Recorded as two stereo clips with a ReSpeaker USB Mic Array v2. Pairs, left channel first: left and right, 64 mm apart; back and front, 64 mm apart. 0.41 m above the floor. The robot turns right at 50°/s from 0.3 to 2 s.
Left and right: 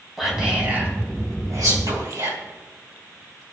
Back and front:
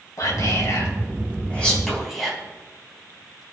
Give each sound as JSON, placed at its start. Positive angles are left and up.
{"t": 0.2, "sound": "whispering", "azimuth_deg": -175, "distance_m": 4.0}